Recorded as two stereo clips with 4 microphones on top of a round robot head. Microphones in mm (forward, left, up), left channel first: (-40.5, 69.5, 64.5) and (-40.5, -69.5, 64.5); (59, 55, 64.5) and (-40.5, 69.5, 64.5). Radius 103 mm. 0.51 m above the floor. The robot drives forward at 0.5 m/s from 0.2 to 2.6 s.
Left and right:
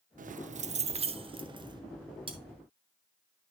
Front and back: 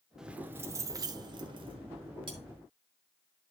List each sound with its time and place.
0.2 s keys jangling: 105° right, 0.7 m; by 1.8 s 150° right, 1.2 m
2.3 s cutlery clinking: 145° right, 2.5 m